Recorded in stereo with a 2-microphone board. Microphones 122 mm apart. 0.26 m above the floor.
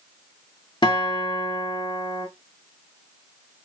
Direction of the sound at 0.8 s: 45° left (ahead or behind).